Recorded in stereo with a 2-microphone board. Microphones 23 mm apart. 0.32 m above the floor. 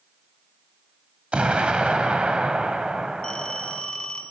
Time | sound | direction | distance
1.3 | an explosion | 50° right (ahead or behind) | 1.3 m
3.2 | a phone ringing | 40° left (ahead or behind) | 2 m